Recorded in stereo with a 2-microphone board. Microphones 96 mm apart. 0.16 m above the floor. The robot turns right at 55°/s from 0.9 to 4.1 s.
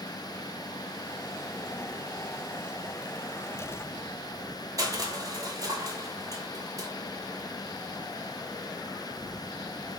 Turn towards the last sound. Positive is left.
turn(degrees=-35)  # may be behind; listen again after turning